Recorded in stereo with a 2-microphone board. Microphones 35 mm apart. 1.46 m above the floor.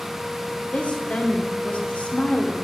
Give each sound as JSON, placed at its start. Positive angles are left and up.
{"t": 0.7, "sound": "a woman speaking", "side_deg": 40, "distance_m": 1.1}